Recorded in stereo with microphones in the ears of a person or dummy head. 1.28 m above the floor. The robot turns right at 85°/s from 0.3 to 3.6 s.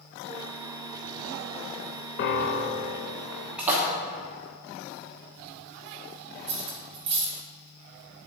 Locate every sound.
2.2 s a piano: 85° left, 0.6 m; by 3.1 s 160° left, 0.6 m
3.6 s a splash: centre (ahead or behind), 1.0 m
6.5 s cutlery clinking: 20° right (ahead or behind), 0.8 m